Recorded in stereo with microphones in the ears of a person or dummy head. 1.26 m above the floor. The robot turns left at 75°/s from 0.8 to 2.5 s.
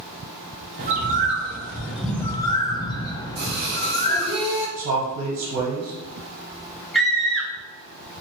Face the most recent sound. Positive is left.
turn(degrees=5)  # may be behind; listen again after turning